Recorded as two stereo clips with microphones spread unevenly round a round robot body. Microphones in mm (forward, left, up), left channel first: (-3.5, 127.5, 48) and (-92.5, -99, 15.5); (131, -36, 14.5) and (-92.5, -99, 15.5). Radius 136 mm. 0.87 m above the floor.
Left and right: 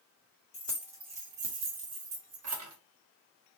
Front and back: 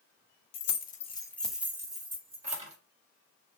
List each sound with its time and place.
0.5 s keys jangling: 15° right, 0.6 m; by 2.8 s 105° right, 1.3 m